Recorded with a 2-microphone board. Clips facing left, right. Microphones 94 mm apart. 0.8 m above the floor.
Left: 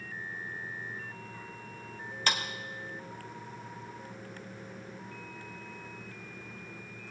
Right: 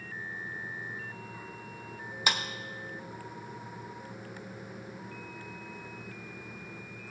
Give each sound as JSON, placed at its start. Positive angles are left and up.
{"t": 2.3, "sound": "a clap", "side_deg": -10, "distance_m": 1.1}